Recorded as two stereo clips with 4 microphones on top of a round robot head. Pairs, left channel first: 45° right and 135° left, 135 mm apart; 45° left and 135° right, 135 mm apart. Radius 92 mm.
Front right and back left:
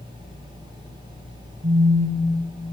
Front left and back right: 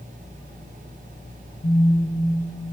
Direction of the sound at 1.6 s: 100° left.